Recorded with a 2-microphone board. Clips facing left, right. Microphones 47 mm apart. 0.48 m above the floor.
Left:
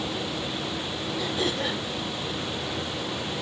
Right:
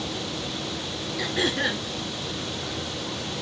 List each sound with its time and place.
1.2 s throat clearing: 85° right, 3 m